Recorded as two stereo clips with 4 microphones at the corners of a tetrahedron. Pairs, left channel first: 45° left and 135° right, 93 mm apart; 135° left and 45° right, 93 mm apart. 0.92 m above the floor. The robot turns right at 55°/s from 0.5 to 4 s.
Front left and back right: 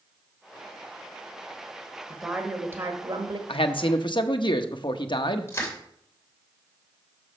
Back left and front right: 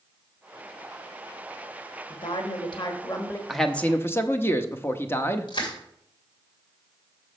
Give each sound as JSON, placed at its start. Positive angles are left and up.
{"t": 2.1, "sound": "a woman speaking", "azimuth_deg": 125, "distance_m": 1.4}
{"t": 3.5, "sound": "a man speaking", "azimuth_deg": 45, "distance_m": 0.8}
{"t": 5.5, "sound": "crushing", "azimuth_deg": 110, "distance_m": 2.5}